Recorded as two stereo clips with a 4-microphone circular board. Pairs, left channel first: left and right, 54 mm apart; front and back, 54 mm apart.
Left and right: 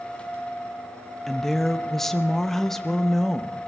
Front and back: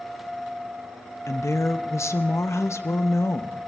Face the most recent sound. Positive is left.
turn(degrees=5)